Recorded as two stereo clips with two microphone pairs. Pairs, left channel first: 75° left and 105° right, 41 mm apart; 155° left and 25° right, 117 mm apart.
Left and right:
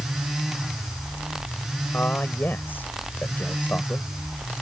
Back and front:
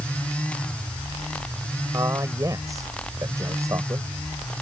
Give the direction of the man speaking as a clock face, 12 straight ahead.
11 o'clock.